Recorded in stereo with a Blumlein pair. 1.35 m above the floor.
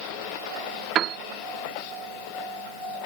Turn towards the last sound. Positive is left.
turn(degrees=-30)